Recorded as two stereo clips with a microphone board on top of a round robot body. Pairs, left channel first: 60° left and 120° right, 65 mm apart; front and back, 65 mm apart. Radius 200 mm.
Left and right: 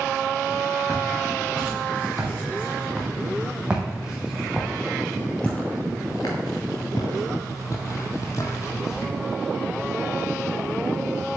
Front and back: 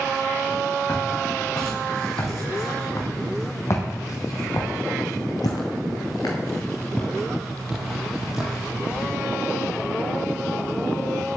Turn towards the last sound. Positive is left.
turn(degrees=105)